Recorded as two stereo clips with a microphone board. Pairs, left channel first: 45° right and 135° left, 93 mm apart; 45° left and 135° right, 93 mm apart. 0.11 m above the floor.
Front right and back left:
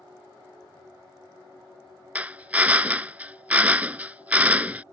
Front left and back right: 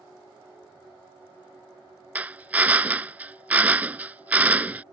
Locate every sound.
2.1 s a drill: straight behind